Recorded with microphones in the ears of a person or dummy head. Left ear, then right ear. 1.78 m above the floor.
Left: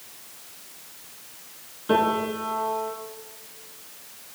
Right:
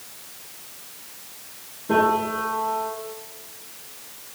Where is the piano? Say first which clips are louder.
Right 2 dB; 60° left (ahead or behind), 9.5 m.